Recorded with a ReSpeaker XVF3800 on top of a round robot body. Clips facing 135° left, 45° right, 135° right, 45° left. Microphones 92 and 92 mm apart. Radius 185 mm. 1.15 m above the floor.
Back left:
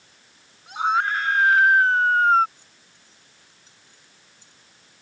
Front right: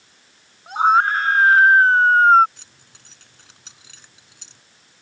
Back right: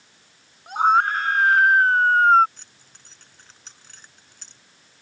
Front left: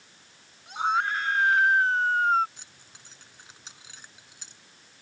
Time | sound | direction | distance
0.7 | a scream | 95° right | ?
2.6 | keys jangling | 35° right | ?